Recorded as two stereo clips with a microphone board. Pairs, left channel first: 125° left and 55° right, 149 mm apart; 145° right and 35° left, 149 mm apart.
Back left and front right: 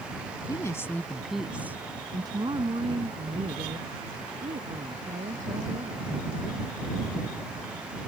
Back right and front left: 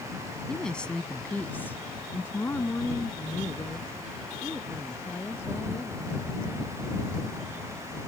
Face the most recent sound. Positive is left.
turn(degrees=-75)